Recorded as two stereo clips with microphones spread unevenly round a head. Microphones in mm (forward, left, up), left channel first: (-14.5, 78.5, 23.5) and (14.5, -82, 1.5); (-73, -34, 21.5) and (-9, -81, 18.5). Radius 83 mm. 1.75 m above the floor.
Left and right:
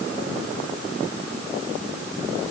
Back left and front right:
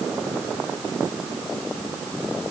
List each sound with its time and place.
Only background noise.